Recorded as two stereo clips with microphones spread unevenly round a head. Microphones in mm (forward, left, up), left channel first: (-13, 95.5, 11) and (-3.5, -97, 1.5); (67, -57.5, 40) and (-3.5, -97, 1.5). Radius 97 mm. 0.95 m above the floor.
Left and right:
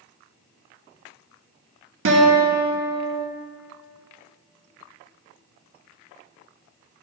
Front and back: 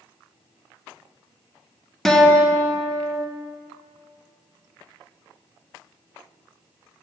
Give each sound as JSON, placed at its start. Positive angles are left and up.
{"t": 2.0, "sound": "a guitar", "azimuth_deg": -65, "distance_m": 1.1}